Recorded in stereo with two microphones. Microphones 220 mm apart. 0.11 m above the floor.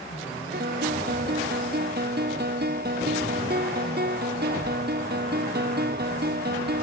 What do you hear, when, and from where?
0.5 s a guitar: 45° right (ahead or behind)